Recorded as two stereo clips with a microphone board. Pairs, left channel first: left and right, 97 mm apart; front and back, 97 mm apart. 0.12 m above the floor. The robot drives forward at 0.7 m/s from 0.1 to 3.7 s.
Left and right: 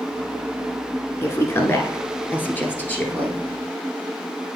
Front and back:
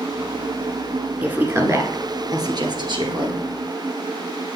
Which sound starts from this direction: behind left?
A woman speaking, at 1.2 s.